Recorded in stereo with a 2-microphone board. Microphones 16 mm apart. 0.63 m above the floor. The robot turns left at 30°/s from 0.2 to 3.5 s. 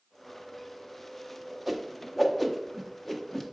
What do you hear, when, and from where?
1.7 s a whoosh: 5° right (ahead or behind), 1.2 m; by 3.4 s 20° left (ahead or behind), 1.2 m